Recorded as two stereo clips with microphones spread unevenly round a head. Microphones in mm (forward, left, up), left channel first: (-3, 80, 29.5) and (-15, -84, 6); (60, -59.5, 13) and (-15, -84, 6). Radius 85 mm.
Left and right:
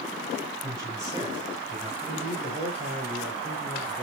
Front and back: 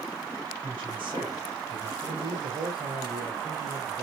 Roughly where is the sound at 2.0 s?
Behind.